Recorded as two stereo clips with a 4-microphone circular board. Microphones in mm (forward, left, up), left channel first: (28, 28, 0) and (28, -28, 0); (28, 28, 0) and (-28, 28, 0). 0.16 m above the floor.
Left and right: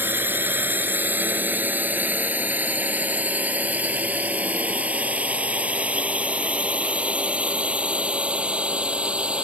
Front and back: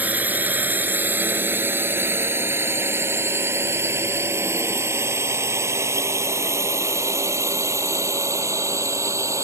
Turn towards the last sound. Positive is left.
turn(degrees=-160)